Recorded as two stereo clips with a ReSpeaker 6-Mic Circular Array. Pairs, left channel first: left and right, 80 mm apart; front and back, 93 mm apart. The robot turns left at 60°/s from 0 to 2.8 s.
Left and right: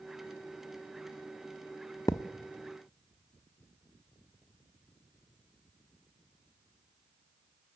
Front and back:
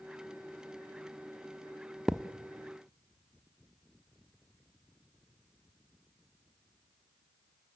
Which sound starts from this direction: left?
A thud, at 2.1 s.